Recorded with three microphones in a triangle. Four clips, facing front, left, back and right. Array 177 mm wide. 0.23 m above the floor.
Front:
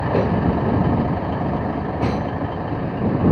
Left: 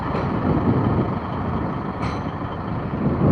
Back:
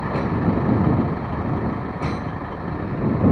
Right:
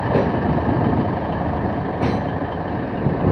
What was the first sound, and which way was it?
A vehicle, 60° right.